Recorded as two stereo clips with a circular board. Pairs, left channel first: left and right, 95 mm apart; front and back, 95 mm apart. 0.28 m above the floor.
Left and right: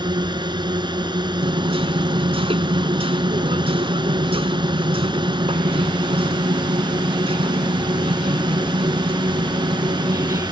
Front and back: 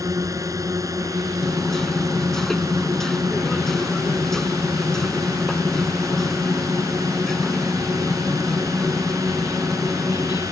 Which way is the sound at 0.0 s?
125° right.